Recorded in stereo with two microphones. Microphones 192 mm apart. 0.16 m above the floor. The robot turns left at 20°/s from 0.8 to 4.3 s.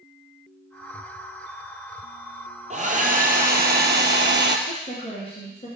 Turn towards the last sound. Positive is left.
turn(degrees=35)  # may be behind; listen again after turning